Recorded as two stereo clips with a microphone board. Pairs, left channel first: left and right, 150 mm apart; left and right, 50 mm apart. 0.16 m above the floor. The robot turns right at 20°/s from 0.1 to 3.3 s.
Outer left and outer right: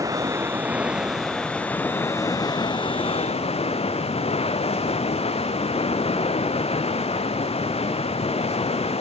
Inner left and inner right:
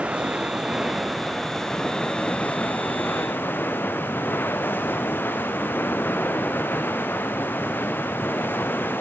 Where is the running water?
20° right, 1.9 m; by 9.0 s 40° left, 1.9 m.